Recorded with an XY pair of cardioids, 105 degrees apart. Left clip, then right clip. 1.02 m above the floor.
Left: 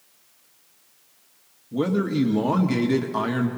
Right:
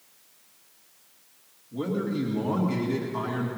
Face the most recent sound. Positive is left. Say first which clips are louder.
# left 6 dB
turn(degrees=60)